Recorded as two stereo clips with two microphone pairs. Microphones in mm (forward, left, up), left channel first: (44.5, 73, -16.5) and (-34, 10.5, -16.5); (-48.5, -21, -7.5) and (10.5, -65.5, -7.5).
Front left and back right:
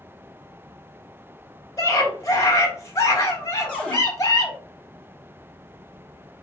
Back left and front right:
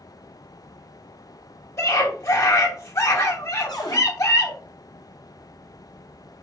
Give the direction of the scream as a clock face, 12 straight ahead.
9 o'clock.